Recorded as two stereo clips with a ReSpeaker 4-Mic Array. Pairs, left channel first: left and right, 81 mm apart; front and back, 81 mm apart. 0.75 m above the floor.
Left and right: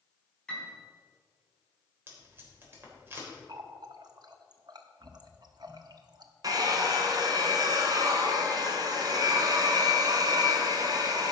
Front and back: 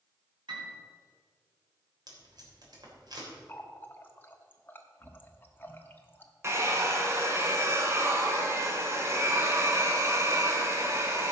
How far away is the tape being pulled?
About 3 m.